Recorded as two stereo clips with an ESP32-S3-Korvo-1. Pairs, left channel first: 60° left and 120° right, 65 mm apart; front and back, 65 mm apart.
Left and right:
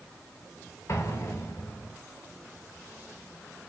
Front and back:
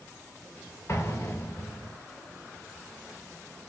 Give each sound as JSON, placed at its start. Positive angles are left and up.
{"t": 0.9, "sound": "an explosion", "azimuth_deg": 35, "distance_m": 0.8}